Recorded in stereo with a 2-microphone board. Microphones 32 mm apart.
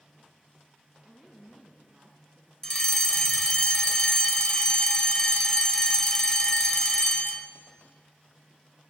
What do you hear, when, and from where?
1.0 s a woman speaking: 15° right (ahead or behind), 3 m; by 2.5 s 20° right (ahead or behind), 4 m
2.6 s a fire alarm: 20° left (ahead or behind), 1.8 m